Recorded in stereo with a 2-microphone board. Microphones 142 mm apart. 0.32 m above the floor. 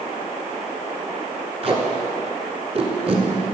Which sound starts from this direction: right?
Tape being pulled, at 1.6 s.